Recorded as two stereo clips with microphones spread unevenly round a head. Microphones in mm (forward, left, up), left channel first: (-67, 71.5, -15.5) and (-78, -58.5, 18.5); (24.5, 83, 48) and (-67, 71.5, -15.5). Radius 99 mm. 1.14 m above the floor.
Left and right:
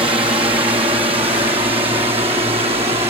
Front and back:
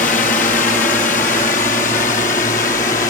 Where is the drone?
25° right; by 3.1 s 30° right.